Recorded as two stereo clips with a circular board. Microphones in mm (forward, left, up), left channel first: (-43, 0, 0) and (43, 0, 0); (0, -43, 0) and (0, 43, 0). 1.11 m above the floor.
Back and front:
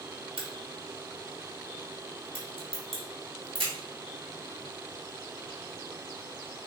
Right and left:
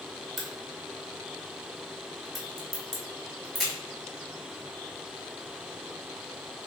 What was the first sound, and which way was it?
A crack, straight ahead.